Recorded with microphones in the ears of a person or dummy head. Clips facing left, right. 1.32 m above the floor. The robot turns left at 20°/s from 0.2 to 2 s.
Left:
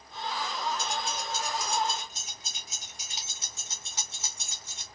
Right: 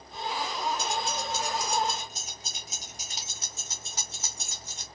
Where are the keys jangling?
60° right (ahead or behind), 0.7 m; by 4.9 s 35° right (ahead or behind), 0.7 m.